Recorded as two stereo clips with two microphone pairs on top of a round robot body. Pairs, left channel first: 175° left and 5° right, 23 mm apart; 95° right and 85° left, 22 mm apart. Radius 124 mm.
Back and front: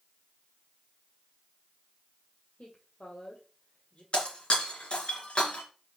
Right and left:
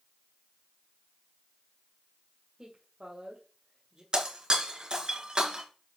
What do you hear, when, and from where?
2.6 s a woman speaking: 135° left, 2 m
4.1 s breaking glass: 130° left, 3 m